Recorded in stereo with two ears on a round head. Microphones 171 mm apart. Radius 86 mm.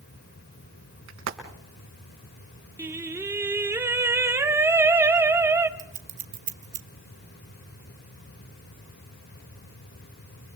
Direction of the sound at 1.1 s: 85° right.